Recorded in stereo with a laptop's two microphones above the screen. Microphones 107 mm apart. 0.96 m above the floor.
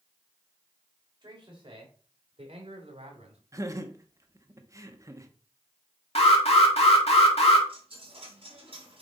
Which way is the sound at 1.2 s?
45° right (ahead or behind).